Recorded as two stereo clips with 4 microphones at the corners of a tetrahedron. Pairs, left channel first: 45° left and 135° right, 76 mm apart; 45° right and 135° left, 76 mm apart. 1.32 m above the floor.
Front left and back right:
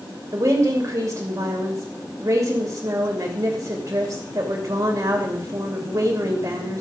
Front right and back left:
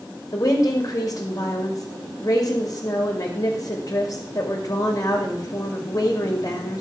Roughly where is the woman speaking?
Right.